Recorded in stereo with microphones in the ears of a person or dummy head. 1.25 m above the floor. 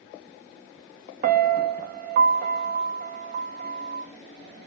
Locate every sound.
1.2 s a piano: 55° right (ahead or behind), 0.6 m